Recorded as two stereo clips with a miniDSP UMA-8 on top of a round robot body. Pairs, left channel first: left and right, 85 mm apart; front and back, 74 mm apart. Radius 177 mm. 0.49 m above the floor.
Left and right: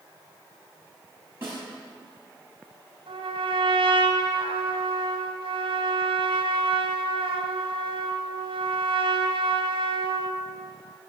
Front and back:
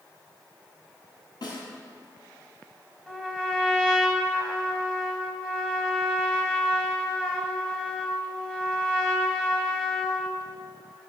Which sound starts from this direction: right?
A trumpet, at 3.1 s.